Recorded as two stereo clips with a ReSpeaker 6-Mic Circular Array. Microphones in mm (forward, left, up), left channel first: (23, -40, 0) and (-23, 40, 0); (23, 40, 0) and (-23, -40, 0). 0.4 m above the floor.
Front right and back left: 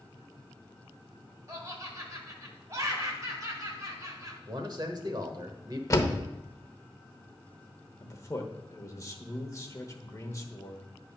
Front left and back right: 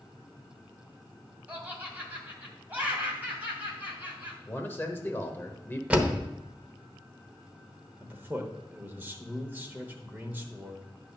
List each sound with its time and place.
1.5 s laughter: 170° left, 2.5 m
4.5 s a man speaking: 115° left, 1.1 m
5.9 s a door slam: 60° right, 0.9 m
8.0 s a man speaking: 70° right, 1.0 m